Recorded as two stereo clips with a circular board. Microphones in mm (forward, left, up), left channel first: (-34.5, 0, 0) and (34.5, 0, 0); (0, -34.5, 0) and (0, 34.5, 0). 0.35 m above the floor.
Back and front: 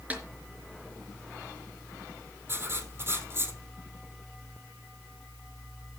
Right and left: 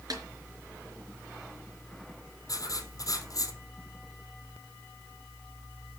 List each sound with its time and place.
0.1 s a snare drum: 65° left, 4 m
2.5 s writing: 60° right, 3 m